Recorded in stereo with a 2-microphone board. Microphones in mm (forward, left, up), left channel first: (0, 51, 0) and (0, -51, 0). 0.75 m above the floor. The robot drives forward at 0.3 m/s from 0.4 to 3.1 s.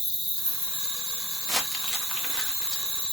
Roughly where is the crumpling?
Centre.